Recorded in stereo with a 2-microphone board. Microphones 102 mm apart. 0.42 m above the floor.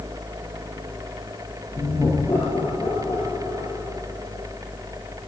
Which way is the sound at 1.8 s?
30° left (ahead or behind).